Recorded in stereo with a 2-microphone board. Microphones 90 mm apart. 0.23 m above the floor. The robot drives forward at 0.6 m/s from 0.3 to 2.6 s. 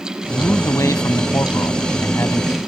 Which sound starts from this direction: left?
A man speaking, at 0.3 s.